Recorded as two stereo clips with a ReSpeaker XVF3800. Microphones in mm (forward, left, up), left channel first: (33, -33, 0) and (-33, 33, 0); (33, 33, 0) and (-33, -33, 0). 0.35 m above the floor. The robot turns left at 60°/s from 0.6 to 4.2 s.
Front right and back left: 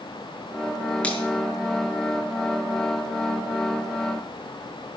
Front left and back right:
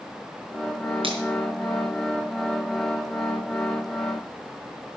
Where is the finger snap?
120° right, 5.5 m; by 1.2 s 130° right, 5.5 m.